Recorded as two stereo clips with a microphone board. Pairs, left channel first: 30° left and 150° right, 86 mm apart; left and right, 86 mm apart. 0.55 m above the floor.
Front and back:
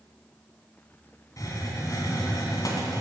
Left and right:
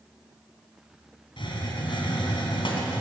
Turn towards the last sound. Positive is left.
turn(degrees=80)